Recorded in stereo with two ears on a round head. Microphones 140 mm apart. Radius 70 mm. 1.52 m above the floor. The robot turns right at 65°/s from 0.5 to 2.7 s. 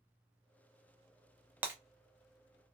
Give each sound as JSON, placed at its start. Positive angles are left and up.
{"t": 1.6, "sound": "breaking glass", "side_deg": -10, "distance_m": 0.7}